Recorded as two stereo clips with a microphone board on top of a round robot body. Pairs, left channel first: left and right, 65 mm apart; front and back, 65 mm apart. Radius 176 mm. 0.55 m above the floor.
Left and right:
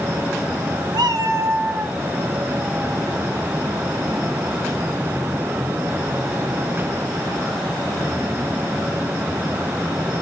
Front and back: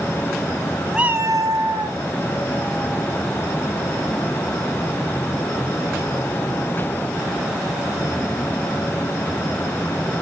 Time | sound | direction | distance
0.9 | a cat meowing | 100° right | 0.5 m